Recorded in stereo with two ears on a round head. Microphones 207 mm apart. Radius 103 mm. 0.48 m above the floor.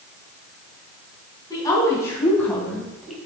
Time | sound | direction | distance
1.5 | a woman speaking | 15° left (ahead or behind) | 4 m